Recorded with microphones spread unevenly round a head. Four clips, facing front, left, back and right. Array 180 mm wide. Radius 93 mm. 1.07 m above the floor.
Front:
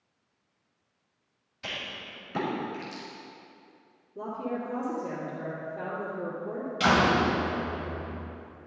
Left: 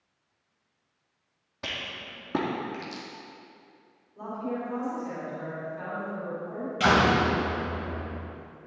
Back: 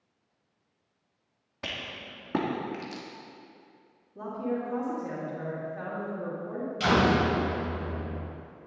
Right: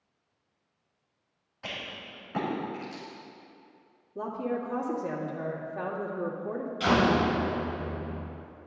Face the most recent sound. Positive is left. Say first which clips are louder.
# left 2 dB, front 1 dB
turn(degrees=65)